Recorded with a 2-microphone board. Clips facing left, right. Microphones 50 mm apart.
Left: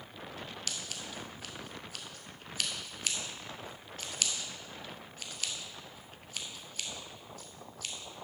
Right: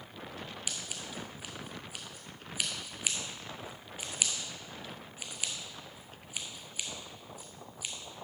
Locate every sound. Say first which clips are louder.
0.7 s scissors: even; 15° right (ahead or behind), 0.9 m